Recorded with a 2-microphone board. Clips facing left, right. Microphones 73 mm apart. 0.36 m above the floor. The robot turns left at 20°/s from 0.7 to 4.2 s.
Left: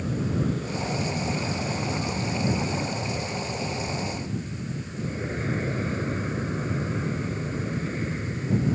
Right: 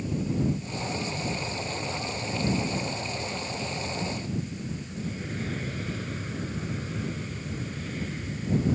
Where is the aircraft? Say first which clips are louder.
Left 1 dB; 100° left; by 8.8 s 30° left.